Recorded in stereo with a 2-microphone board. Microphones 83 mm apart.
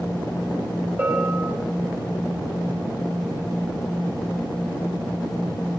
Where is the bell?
25° right (ahead or behind), 2.5 m.